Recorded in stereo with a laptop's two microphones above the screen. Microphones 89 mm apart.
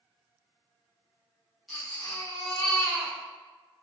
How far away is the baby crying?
About 0.8 m.